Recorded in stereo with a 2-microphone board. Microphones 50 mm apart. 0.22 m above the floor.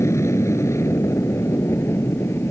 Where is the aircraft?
65° left (ahead or behind); by 2.5 s 55° left (ahead or behind).